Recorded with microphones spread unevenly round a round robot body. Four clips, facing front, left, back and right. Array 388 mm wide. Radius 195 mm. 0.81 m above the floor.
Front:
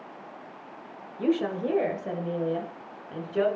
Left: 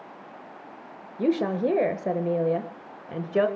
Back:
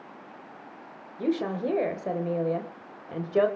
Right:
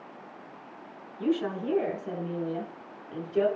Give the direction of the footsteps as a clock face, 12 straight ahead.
No footsteps in this recording.